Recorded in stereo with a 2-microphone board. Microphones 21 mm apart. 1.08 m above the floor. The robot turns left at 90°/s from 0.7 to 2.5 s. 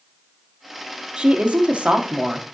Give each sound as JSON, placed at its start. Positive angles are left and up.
{"t": 1.2, "sound": "a woman speaking", "azimuth_deg": -45, "distance_m": 1.9}